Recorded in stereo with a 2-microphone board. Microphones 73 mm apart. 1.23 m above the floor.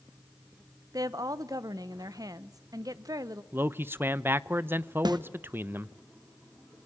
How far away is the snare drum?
About 1.0 m.